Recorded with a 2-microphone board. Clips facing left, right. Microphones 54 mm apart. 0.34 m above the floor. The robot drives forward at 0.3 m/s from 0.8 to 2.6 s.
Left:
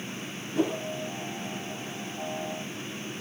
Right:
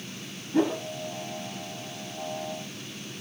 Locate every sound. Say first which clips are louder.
0.5 s a whoosh: right 3 dB; 50° right (ahead or behind), 0.7 m